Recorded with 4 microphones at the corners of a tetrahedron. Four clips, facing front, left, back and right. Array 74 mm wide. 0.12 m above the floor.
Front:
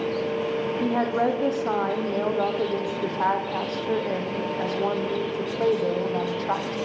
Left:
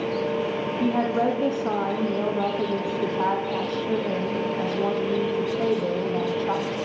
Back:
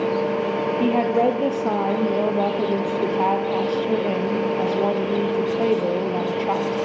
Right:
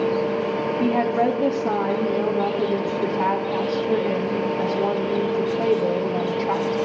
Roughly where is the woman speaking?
Behind.